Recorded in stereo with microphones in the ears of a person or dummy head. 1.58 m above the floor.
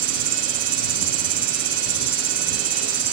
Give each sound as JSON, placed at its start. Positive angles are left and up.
{"t": 0.0, "sound": "an insect", "side_deg": -40}